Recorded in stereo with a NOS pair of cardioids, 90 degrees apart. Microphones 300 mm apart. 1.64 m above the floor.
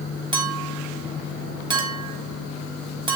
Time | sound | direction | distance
0.3 | a clink | 15° right | 2.5 m